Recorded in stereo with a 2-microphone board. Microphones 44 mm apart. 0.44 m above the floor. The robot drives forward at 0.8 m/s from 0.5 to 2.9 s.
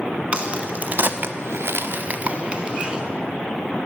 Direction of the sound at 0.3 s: 30° right (ahead or behind).